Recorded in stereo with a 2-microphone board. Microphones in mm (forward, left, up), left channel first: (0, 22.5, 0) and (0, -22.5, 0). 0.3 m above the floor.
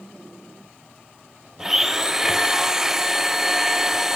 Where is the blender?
10° right (ahead or behind), 1.4 m.